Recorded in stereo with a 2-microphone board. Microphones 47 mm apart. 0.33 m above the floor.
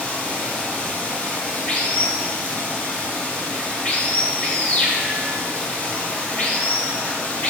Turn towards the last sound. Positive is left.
turn(degrees=30)  # may be behind; listen again after turning